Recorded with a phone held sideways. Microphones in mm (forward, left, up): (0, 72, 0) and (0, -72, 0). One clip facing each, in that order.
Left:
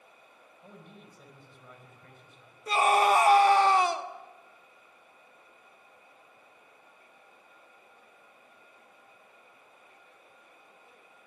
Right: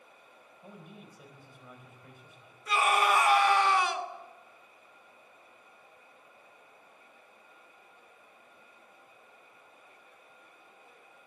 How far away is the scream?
About 1.8 m.